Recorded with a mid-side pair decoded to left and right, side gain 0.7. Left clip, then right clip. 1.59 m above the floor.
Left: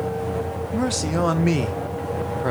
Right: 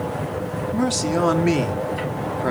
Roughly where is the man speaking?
Ahead.